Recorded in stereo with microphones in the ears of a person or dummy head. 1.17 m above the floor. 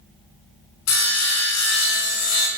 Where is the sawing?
75° left (ahead or behind), 0.5 m.